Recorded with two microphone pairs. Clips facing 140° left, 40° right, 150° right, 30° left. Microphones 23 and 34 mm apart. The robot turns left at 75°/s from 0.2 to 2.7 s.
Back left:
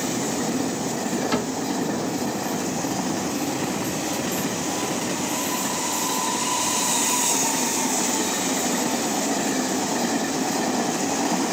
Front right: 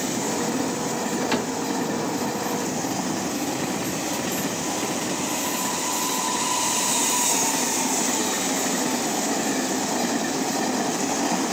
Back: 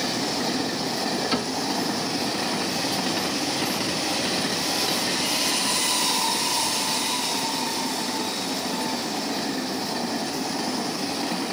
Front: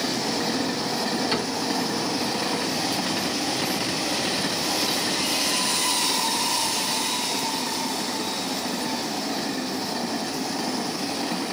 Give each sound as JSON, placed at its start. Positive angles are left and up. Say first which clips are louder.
{"t": 1.3, "sound": "a cupboard door", "louder": "even, even", "azimuth_deg": -40, "distance_m": 2.0}